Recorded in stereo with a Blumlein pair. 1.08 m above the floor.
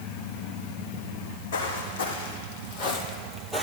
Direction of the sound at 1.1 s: 60° left.